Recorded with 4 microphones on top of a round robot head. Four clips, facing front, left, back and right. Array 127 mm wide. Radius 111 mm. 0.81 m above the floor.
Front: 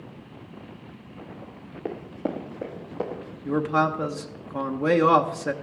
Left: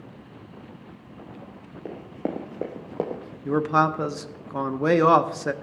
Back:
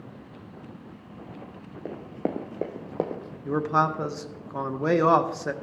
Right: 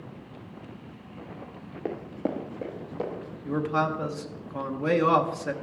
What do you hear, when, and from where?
1.9 s running footsteps: 65° right, 0.8 m; by 3.4 s 140° left, 1.7 m
3.5 s a man speaking: 90° left, 0.8 m